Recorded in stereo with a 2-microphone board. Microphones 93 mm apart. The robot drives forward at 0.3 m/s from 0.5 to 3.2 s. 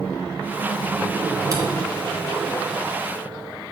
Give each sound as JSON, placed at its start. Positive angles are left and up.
{"t": 1.5, "sound": "a camera shutter", "side_deg": -40, "distance_m": 2.5}